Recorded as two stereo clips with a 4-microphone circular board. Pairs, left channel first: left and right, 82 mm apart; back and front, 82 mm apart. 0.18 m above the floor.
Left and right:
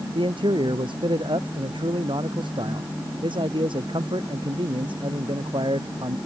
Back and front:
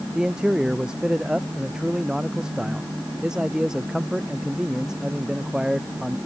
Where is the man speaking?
80° right.